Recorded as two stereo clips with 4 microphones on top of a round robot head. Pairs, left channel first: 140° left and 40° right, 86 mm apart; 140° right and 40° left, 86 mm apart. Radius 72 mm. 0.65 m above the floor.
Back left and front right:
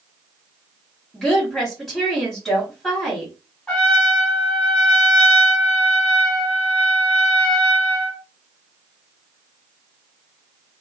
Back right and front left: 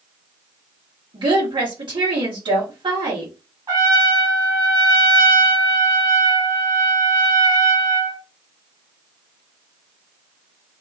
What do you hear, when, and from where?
1.1 s a woman speaking: 55° left, 1.5 m
3.7 s a trumpet: 55° left, 1.9 m